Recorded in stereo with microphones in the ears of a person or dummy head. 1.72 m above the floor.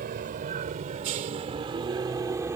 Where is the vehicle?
55° right (ahead or behind); by 2.6 s 15° right (ahead or behind).